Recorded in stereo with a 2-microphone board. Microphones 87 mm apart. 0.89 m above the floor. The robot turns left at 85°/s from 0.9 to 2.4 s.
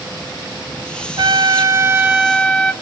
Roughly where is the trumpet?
Right.